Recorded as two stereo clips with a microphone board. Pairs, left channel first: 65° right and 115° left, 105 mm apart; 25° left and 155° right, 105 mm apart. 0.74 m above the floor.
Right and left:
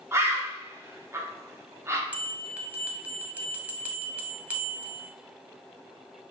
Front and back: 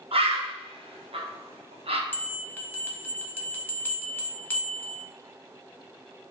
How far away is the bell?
About 0.6 m.